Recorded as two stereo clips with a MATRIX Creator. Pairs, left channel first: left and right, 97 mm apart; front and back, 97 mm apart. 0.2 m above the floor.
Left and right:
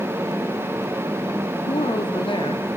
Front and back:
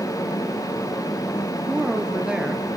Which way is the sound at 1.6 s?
100° left.